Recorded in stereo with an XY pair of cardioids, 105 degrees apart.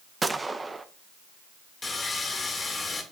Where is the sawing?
35° left, 2 m.